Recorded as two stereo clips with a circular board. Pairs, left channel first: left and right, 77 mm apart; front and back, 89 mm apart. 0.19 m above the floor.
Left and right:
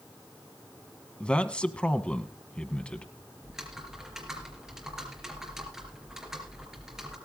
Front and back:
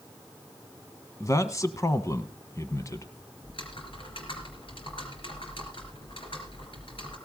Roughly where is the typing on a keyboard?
Ahead.